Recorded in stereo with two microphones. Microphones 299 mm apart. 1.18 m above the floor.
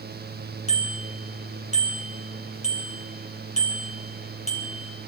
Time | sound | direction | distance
0.7 | a bicycle bell | 20° left (ahead or behind) | 8.5 m